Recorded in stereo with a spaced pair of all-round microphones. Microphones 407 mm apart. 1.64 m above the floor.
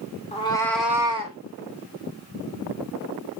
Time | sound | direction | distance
0.3 | a cat meowing | 15° left (ahead or behind) | 0.9 m